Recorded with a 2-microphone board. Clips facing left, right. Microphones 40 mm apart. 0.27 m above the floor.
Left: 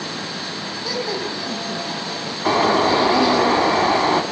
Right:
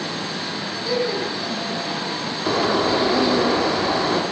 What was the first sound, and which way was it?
Laughter, 85° left.